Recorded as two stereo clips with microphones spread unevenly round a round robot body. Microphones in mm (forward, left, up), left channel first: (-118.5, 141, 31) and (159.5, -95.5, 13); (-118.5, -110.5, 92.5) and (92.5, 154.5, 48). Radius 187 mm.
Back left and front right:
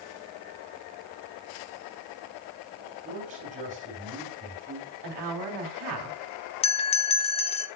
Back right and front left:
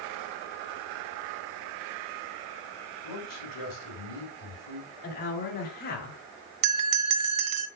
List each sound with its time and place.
3.0 s a man speaking: 110° right, 4.5 m
5.0 s a woman speaking: 65° right, 2.5 m
6.6 s a bell: 65° left, 0.8 m